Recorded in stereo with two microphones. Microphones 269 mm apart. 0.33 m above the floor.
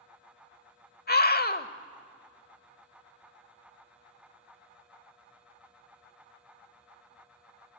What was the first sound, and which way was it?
A scream, 35° left (ahead or behind).